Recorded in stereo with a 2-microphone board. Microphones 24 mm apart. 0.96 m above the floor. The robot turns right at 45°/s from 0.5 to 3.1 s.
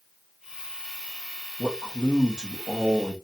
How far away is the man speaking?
About 1.7 m.